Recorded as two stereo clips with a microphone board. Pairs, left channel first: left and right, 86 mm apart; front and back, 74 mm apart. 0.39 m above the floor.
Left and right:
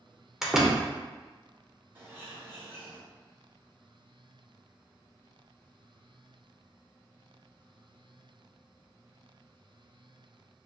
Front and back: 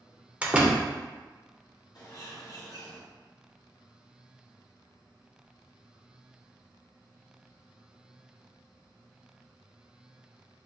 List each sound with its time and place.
0.4 s a door slam: 160° right, 0.9 m
1.9 s a bird: 30° right, 1.4 m